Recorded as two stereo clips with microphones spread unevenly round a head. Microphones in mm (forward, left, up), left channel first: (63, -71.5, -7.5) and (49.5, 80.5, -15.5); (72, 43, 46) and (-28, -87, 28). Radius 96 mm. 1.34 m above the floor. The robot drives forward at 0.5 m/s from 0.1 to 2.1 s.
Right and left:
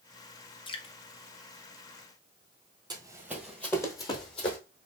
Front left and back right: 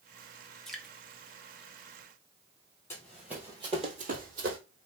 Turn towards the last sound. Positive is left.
turn(degrees=-115)